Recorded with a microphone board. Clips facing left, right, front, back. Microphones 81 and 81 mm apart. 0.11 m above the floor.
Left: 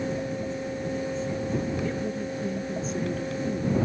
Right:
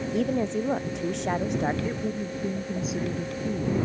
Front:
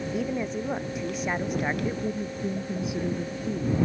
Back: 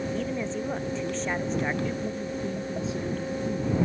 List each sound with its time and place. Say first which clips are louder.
0.1 s a woman speaking: right 5 dB, front 1 dB; 80° right
1.8 s a woman speaking: even, front 1 dB; 25° right